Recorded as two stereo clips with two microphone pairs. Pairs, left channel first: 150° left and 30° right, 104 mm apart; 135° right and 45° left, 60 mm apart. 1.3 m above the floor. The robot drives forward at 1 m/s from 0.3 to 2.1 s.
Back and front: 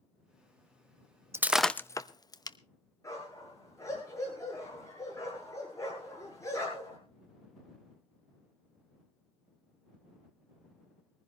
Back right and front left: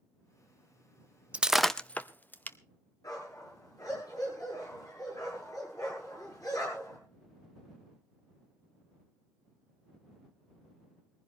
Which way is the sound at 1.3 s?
10° left.